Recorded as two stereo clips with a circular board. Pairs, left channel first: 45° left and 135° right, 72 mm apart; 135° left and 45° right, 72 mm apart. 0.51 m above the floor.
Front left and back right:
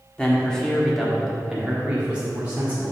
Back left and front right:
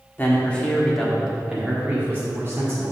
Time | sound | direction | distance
0.2 | a man speaking | 105° left | 1.4 m